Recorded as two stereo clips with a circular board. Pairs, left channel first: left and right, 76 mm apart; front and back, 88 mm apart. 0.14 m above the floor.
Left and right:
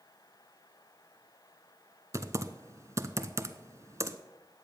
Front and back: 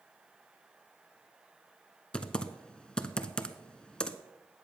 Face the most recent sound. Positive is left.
turn(degrees=-75)